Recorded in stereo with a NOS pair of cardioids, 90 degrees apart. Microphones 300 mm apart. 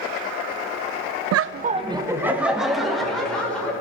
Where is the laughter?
65° right, 0.5 m; by 3.7 s 5° left, 4 m.